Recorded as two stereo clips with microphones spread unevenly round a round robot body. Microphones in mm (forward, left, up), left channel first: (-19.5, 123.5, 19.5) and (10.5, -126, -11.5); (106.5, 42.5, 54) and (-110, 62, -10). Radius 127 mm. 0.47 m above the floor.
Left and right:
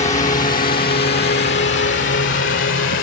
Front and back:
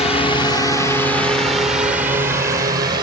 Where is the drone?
55° left; by 3.0 s 130° left.